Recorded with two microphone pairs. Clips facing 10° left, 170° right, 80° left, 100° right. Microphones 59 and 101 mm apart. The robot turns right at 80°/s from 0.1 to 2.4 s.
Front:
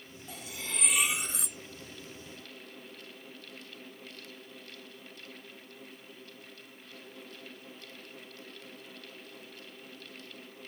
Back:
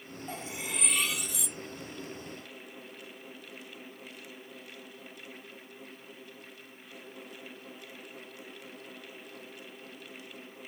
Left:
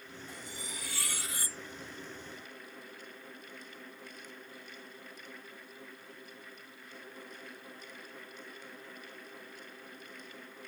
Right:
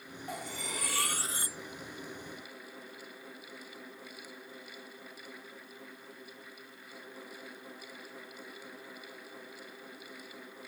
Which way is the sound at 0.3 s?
125° right.